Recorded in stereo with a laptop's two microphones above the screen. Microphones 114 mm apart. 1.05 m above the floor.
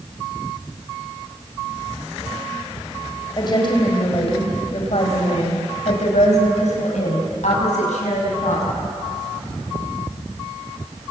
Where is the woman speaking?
40° left (ahead or behind), 4.5 m; by 8.6 s 85° left, 7.5 m.